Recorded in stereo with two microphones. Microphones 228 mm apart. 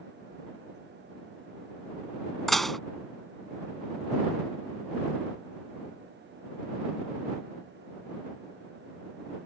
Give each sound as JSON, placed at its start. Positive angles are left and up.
{"t": 2.5, "sound": "dishes clattering", "side_deg": 0}